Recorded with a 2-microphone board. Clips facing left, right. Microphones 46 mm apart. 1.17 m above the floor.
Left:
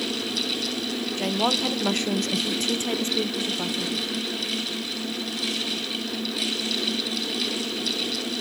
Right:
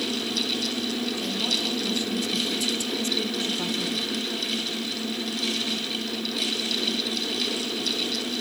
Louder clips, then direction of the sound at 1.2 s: Left 4 dB; 55° left (ahead or behind).